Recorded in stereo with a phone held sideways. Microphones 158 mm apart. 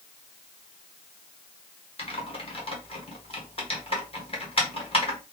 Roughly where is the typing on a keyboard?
Left.